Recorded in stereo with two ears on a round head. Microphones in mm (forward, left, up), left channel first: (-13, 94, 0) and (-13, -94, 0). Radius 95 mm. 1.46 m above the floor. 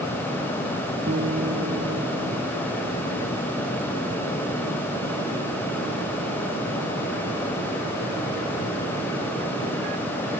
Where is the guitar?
45° right (ahead or behind).